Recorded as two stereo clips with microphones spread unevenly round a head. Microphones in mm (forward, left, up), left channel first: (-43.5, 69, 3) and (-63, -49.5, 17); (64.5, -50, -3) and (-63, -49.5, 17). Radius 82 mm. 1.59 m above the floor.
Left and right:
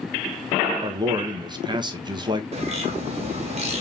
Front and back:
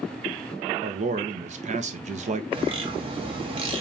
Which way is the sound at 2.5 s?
135° right.